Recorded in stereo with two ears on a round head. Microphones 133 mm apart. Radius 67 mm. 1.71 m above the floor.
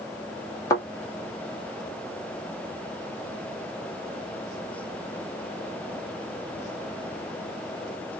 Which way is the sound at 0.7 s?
25° left (ahead or behind).